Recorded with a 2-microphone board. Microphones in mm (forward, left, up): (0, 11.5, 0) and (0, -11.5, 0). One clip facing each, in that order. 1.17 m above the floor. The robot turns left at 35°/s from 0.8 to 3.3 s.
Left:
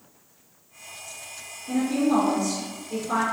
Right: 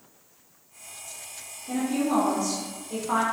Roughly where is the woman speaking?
Ahead.